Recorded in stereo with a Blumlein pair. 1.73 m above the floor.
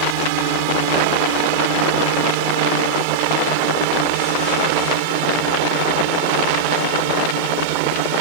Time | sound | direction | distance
0.0 | a drone | 45° right | ?